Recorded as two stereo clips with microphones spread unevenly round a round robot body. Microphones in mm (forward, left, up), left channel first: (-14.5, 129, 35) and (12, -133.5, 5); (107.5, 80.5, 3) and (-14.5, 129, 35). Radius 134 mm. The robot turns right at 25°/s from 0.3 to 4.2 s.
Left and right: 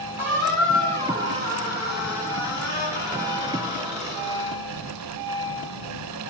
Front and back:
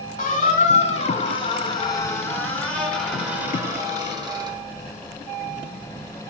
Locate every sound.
0.2 s a squeak: straight ahead, 0.9 m; by 4.6 s 100° left, 0.9 m